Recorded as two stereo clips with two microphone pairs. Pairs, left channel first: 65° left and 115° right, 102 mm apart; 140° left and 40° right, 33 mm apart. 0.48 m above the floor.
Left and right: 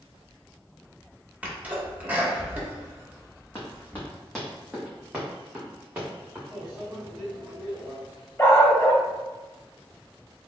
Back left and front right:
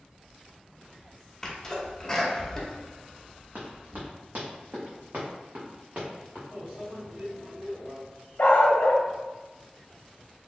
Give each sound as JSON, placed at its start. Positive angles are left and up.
{"t": 1.4, "sound": "a sneeze", "azimuth_deg": -170, "distance_m": 0.9}
{"t": 3.5, "sound": "running footsteps", "azimuth_deg": 0, "distance_m": 1.4}
{"t": 6.5, "sound": "a microwave", "azimuth_deg": -40, "distance_m": 1.9}
{"t": 8.4, "sound": "a dog barking", "azimuth_deg": 130, "distance_m": 0.7}